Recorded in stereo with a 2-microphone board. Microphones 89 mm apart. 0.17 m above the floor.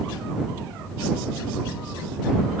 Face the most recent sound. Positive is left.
No sound to turn to.